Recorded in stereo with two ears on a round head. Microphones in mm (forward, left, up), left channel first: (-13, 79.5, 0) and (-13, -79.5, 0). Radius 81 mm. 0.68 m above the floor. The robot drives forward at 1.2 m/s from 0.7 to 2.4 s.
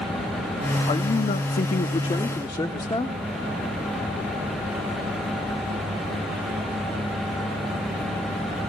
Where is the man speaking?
25° left (ahead or behind), 1.1 m; by 3.1 s 20° left (ahead or behind), 1.2 m.